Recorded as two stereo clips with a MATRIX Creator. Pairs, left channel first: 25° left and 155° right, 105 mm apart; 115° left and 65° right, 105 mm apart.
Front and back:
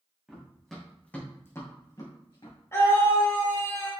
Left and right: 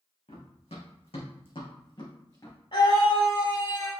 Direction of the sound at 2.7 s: 85° left.